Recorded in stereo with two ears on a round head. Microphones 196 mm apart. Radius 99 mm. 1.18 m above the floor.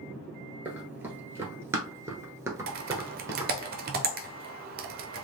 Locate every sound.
0.7 s running footsteps: 10° right (ahead or behind), 1.3 m; by 3.5 s 15° right (ahead or behind), 1.5 m
2.7 s typing on a keyboard: 45° right (ahead or behind), 0.7 m